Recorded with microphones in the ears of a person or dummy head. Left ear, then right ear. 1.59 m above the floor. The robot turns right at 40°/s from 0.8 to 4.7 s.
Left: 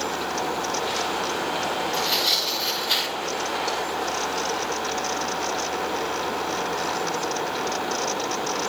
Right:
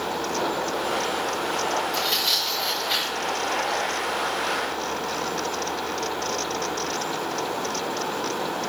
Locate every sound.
1.9 s tearing paper: 15° right (ahead or behind), 7 m; by 3.8 s 60° left (ahead or behind), 7 m